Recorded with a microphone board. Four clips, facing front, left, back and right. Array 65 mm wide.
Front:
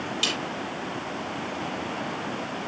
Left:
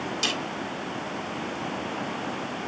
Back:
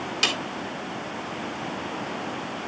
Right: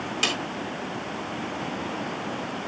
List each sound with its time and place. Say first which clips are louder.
0.2 s a snare drum: right 4 dB, back 5 dB; 135° right, 3.5 m